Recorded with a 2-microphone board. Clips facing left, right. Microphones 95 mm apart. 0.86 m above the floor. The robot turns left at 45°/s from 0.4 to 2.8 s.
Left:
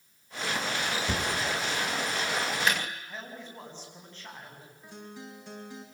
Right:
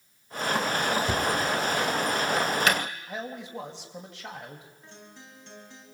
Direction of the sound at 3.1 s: 85° right.